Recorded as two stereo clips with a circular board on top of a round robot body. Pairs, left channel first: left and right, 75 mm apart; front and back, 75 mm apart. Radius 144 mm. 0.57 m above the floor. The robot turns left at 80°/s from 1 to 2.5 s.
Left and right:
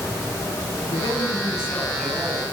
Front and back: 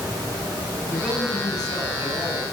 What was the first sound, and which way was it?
A man speaking, 80° left.